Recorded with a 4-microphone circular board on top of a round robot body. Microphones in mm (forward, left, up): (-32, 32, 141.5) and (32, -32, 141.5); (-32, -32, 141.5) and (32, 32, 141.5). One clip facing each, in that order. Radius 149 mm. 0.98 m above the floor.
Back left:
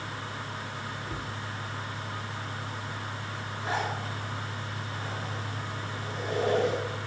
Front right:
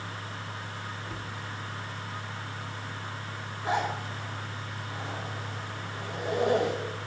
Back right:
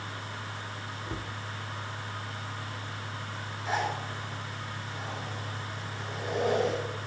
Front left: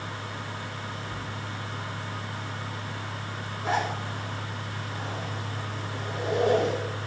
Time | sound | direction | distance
1.1 | a cupboard door | 140° right | 1.0 m
3.6 | a zipper | 25° left | 6 m